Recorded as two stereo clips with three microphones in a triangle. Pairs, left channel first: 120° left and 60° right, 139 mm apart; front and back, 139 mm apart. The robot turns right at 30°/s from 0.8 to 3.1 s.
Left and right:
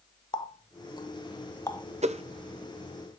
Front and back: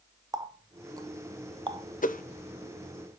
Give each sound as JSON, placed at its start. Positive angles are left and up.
{"t": 0.3, "sound": "a running tap", "azimuth_deg": 140, "distance_m": 0.6}
{"t": 2.0, "sound": "a whoosh", "azimuth_deg": -20, "distance_m": 0.6}